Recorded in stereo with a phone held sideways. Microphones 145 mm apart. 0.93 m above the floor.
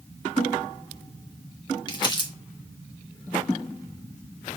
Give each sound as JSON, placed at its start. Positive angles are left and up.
{"t": 1.9, "sound": "crumpling", "side_deg": 35, "distance_m": 1.0}